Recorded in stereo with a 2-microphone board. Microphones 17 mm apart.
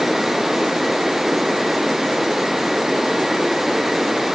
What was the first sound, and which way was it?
Only background noise.